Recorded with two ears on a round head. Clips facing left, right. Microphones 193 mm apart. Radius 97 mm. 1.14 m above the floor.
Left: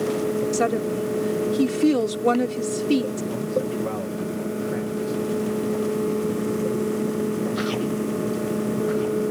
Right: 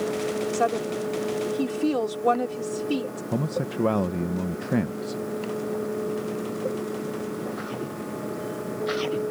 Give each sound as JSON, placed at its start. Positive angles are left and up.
{"t": 0.5, "sound": "a woman speaking", "side_deg": 30}
{"t": 3.3, "sound": "a man speaking", "side_deg": -60}